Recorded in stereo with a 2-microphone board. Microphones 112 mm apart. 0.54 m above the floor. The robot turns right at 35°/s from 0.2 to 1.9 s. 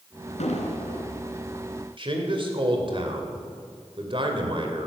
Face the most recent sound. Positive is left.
turn(degrees=-50)  # may be behind; listen again after turning